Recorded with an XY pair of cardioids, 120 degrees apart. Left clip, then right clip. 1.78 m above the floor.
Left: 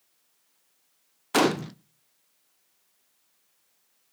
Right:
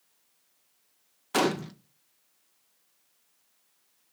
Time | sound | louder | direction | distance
1.3 | a gunshot | left 3 dB | 20° left | 0.5 m